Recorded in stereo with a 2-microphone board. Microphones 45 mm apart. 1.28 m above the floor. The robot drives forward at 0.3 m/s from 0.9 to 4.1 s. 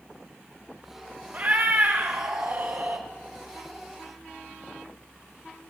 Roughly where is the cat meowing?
Right.